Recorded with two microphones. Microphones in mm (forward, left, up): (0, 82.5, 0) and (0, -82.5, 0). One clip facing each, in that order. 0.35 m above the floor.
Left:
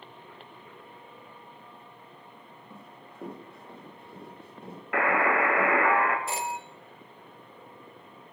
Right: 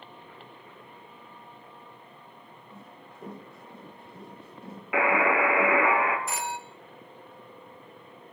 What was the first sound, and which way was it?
Running footsteps, 55° left (ahead or behind).